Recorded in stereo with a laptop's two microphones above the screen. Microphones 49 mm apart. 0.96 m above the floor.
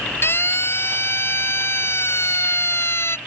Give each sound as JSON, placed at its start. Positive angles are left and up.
{"t": 0.2, "sound": "a siren", "side_deg": 55}